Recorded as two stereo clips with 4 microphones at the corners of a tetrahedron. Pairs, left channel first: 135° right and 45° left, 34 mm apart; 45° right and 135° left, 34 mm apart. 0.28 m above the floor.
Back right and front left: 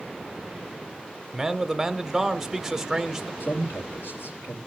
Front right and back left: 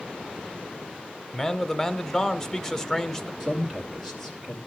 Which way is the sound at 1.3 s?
10° right.